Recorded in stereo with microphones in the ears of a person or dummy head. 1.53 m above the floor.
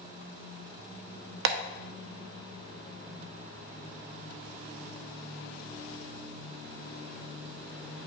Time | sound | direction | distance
1.4 | tapping | 70° right (ahead or behind) | 0.8 m